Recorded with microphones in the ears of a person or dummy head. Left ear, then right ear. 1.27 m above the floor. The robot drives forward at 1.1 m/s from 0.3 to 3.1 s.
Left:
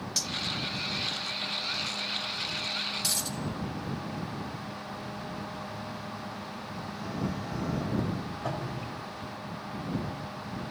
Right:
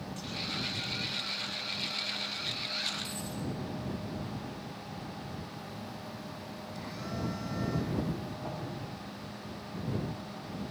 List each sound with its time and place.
0.2 s cutlery clinking: 65° left (ahead or behind), 1.1 m
3.0 s a dropped coin: 80° left, 5 m
5.5 s a phone buzzing: 65° right (ahead or behind), 5.5 m
8.4 s dripping: 70° left (ahead or behind), 4.5 m